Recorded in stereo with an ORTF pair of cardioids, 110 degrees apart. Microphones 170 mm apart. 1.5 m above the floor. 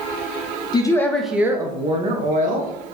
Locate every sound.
0.7 s a woman speaking: 25° left, 0.6 m; by 2.7 s 55° right, 0.9 m